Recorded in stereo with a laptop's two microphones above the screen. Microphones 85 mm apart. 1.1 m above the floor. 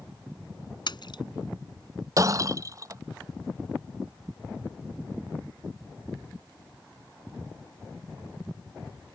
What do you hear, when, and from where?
0.9 s a splash: 60° left (ahead or behind)
2.2 s breaking glass: 40° right (ahead or behind)